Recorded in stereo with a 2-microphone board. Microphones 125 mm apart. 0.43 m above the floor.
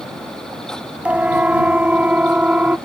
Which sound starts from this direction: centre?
A siren, at 1.1 s.